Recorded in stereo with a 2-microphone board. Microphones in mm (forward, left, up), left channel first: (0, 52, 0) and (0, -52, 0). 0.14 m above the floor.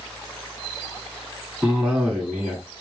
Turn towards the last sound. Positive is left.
turn(degrees=-10)  # may be behind; listen again after turning